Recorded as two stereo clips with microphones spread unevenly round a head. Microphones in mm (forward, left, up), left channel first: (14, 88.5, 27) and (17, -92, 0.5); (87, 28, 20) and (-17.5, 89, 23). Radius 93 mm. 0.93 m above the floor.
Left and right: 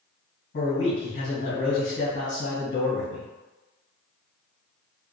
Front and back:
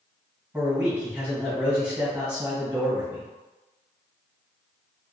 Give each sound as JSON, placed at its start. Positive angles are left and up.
{"t": 0.5, "sound": "a man speaking", "azimuth_deg": 75, "distance_m": 1.6}